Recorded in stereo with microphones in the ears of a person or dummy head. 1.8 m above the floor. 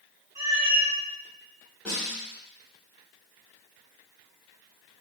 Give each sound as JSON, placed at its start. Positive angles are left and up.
{"t": 0.3, "sound": "a cat meowing", "side_deg": -35, "distance_m": 2.0}
{"t": 1.9, "sound": "a snare drum", "side_deg": 0, "distance_m": 2.5}